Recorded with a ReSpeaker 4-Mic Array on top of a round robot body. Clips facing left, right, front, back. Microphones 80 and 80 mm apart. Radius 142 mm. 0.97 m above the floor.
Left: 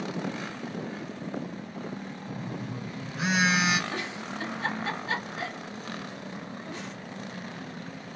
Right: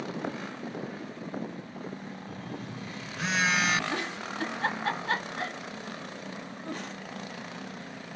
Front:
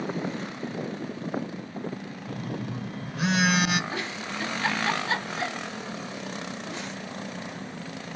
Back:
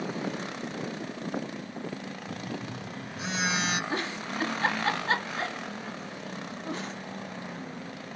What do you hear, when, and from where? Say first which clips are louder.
2.3 s a phone buzzing: left 4 dB, front 4 dB; 5° left, 1.2 m
3.9 s a giggle: right 1 dB, back 1 dB; 130° right, 1.4 m